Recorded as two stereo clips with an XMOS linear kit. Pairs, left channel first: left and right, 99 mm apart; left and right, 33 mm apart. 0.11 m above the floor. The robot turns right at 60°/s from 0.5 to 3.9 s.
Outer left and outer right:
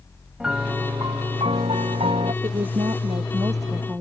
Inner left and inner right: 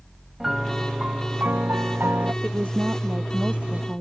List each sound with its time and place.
0.4 s a piano: 170° right; by 2.3 s 60° right
2.4 s a woman speaking: 110° right; by 4.0 s 20° right